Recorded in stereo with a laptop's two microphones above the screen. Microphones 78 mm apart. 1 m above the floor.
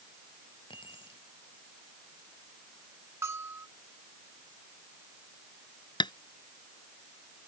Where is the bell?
35° right (ahead or behind).